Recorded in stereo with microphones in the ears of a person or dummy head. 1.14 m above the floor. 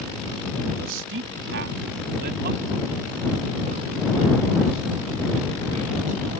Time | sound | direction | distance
0.8 | a man speaking | 75° right (ahead or behind) | ?